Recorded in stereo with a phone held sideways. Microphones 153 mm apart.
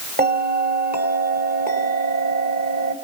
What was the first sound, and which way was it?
A bell, 80° right.